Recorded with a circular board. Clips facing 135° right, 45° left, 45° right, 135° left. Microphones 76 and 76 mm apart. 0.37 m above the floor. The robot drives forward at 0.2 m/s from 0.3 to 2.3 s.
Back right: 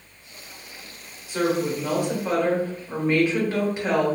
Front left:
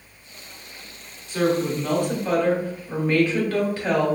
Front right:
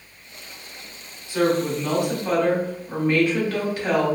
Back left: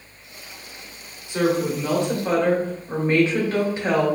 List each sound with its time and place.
1.3 s a woman speaking: 165° left, 1.0 m; by 4.2 s 170° left, 1.1 m